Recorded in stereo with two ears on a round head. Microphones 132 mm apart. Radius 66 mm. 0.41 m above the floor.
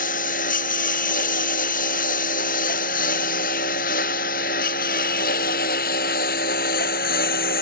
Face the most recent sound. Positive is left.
turn(degrees=65)  # may be behind; listen again after turning